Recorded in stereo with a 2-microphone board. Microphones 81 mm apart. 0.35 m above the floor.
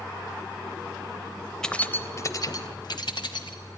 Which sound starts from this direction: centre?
Keys jangling, at 1.6 s.